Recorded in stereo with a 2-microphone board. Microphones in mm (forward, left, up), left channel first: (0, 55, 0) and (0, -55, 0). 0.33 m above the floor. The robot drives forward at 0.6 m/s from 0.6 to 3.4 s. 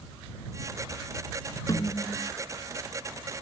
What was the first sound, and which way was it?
A snare drum, 35° left (ahead or behind).